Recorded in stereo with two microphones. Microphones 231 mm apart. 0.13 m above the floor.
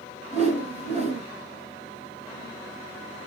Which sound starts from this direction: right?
A whoosh, at 0.3 s.